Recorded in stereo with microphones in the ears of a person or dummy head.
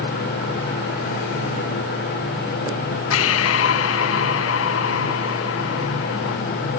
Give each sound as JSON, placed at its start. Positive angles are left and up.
{"t": 3.1, "sound": "breathing", "side_deg": 75}